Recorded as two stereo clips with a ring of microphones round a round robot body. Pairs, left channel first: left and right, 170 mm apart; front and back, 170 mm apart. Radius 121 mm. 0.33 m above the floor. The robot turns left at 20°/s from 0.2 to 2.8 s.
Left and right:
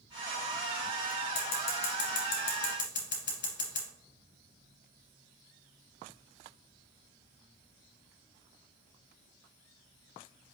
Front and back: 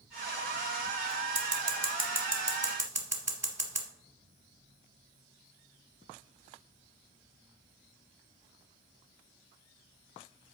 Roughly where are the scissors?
Behind left.